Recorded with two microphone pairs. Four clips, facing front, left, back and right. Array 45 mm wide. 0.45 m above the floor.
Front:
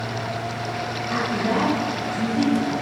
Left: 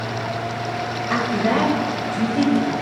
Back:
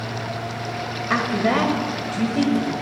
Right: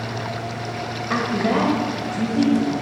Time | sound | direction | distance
1.1 | a woman speaking | 175° right | 1.7 m